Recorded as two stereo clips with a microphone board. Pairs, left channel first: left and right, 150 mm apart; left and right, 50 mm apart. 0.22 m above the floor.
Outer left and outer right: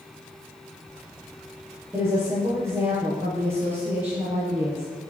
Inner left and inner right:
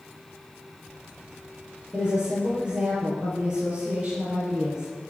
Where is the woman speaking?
15° right (ahead or behind), 5.5 m.